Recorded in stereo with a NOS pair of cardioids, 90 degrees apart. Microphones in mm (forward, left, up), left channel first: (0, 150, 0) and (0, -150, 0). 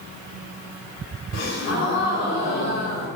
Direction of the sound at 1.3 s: 55° left.